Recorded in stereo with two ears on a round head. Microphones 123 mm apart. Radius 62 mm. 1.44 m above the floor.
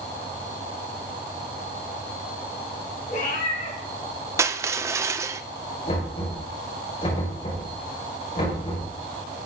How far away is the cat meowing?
About 3 m.